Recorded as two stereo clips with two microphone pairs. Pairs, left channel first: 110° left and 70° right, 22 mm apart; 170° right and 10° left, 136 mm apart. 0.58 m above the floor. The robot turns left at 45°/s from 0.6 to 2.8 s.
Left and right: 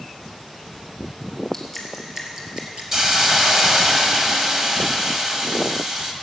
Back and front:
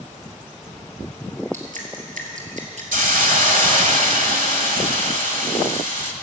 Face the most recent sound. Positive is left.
turn(degrees=0)